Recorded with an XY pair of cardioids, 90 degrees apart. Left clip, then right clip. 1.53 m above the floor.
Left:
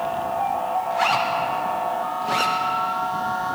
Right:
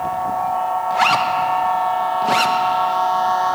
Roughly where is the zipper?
Ahead right.